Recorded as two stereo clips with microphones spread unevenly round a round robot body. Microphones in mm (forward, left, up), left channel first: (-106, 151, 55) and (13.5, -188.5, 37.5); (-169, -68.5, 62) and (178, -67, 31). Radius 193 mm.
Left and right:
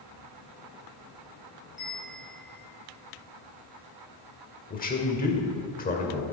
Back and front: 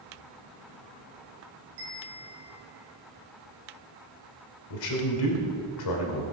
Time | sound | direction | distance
1.8 | a bell | 15° left | 2.5 m
4.7 | a man speaking | 175° left | 1.8 m